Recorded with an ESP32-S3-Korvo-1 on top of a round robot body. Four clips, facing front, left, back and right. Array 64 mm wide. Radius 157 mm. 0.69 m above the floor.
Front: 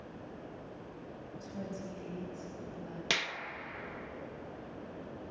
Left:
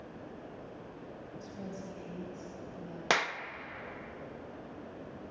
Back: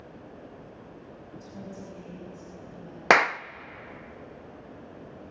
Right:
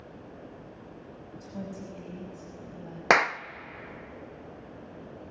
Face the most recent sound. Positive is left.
turn(degrees=-150)